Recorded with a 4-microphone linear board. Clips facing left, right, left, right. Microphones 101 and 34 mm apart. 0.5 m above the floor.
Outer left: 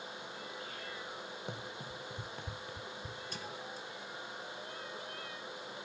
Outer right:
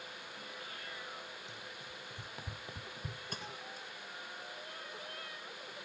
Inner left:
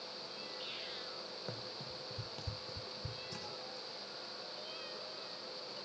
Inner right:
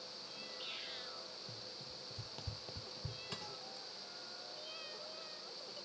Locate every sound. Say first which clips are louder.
1.5 s running footsteps: outer left 6 dB, inner left 5 dB; 55° left (ahead or behind), 0.9 m; by 3.2 s 50° right (ahead or behind), 1.0 m
3.3 s a thud: outer left 2 dB, inner left 2 dB; 50° right (ahead or behind), 7 m